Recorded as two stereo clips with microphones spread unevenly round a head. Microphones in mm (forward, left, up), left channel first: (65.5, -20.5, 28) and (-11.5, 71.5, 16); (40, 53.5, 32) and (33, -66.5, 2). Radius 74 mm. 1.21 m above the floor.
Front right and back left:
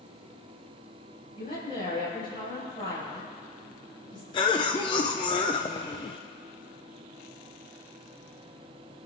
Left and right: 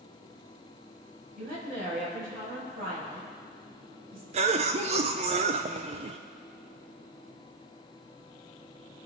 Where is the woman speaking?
105° right, 6 m.